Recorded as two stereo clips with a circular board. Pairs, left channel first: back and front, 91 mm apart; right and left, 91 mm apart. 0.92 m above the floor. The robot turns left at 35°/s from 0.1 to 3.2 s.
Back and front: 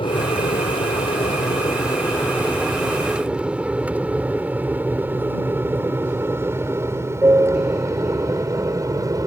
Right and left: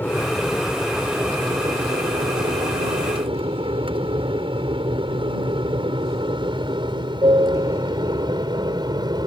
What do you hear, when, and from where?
0.0 s an aircraft: 160° right; by 9.3 s 50° left